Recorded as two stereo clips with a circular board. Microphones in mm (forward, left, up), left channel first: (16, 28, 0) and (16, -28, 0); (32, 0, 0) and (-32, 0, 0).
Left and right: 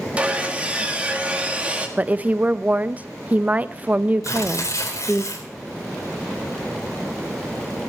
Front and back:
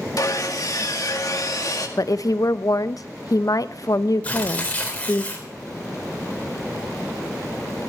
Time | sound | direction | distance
0.2 | sawing | 20° right | 2 m
2.0 | a woman speaking | 25° right | 0.6 m
4.2 | tearing paper | 65° left | 3.5 m